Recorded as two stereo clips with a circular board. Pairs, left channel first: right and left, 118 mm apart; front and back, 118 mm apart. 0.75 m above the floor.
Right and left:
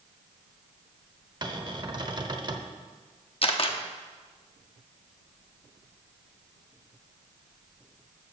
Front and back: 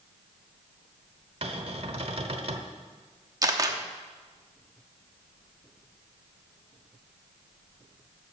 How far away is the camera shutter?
About 0.9 m.